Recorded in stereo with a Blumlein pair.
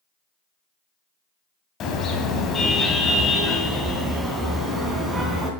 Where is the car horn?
30° left, 3 m; by 5.5 s 10° right, 4 m.